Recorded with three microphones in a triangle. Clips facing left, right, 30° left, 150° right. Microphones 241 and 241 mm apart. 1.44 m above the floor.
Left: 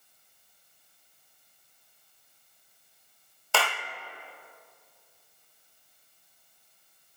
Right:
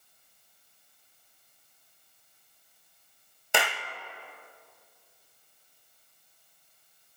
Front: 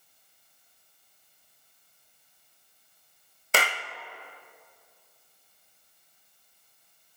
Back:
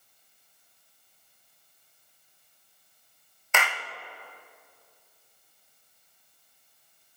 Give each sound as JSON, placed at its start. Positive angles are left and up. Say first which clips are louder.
{"t": 3.5, "sound": "a clap", "louder": "even, front 2 dB", "azimuth_deg": -20, "distance_m": 0.9}